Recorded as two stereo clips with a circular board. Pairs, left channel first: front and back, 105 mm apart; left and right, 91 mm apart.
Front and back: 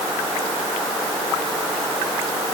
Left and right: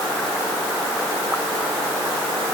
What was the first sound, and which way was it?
Only background noise.